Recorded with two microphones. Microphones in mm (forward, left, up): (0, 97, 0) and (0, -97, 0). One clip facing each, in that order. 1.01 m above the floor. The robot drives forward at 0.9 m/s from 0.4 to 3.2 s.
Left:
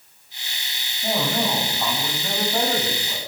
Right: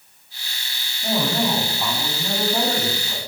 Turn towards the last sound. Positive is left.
turn(degrees=10)  # may be behind; listen again after turning